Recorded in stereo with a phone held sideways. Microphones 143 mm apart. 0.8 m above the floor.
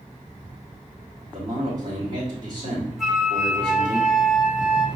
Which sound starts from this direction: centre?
A flute, at 3.0 s.